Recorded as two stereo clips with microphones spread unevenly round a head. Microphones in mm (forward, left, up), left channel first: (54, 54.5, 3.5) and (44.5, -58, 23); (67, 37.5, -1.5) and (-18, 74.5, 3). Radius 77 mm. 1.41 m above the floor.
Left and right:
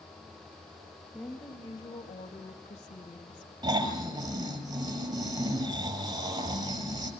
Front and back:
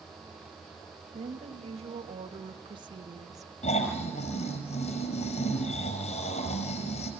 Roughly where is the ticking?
I don't hear ticking.